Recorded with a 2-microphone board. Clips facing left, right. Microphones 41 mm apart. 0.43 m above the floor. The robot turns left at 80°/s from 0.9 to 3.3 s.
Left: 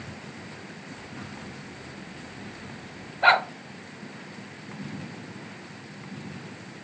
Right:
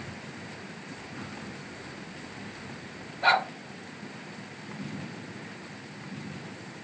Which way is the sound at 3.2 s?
30° left (ahead or behind).